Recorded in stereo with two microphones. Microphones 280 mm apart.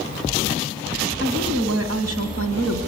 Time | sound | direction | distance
1.2 | a woman speaking | 65° right (ahead or behind) | 2.5 m